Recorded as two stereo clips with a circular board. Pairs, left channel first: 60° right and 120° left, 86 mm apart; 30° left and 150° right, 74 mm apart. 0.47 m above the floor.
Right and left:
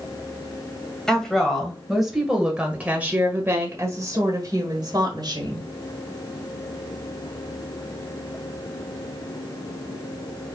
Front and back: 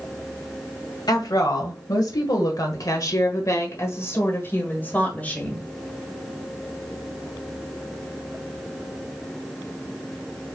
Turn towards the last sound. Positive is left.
turn(degrees=105)